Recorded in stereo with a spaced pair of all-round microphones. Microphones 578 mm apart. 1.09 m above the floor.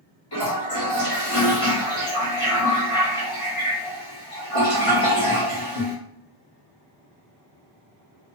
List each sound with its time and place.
0.3 s a toilet flushing: 65° left (ahead or behind), 1.0 m